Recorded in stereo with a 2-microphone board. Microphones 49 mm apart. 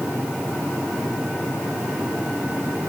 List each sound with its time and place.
Only background noise.